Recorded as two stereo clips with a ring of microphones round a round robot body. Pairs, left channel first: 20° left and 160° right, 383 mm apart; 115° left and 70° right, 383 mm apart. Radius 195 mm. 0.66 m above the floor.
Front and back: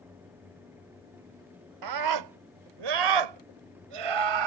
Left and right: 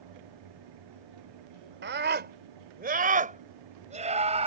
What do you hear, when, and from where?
1.8 s a scream: 130° right; by 4.5 s 140° right